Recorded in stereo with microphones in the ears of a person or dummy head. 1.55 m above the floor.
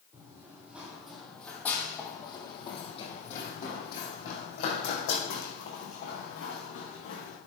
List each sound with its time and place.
0.1 s running footsteps: 15° right (ahead or behind), 3 m; by 7.4 s 70° left (ahead or behind), 5.5 m